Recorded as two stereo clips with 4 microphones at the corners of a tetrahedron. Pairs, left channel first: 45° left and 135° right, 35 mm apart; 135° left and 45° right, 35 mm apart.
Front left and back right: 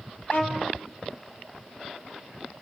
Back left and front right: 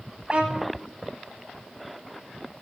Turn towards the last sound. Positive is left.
turn(degrees=15)